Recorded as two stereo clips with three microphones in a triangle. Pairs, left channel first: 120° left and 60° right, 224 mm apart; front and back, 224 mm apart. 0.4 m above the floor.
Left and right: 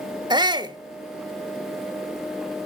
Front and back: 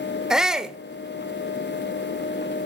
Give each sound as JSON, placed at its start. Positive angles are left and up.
{"t": 0.3, "sound": "a shout", "azimuth_deg": -95, "distance_m": 1.1}